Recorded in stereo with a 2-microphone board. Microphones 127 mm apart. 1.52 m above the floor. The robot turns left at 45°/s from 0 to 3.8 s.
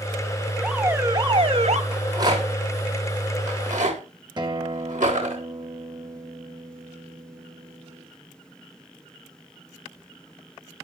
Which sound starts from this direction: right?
A guitar, at 4.4 s.